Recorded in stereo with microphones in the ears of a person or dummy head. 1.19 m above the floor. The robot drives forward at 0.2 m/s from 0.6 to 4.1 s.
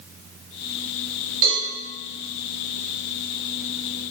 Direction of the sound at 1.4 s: 45° right (ahead or behind).